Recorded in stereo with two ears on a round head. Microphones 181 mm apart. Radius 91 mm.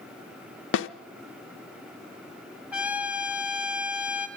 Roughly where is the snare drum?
Left.